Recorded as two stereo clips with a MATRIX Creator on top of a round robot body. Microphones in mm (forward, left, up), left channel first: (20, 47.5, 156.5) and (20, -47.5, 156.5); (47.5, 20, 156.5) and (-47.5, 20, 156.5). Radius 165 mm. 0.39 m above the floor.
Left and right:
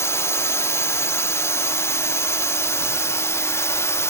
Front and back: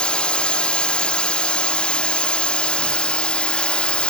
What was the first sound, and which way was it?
A drone, 70° left.